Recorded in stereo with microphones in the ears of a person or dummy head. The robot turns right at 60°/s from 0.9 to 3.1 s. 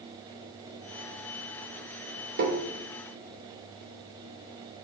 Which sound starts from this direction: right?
Tapping, at 2.4 s.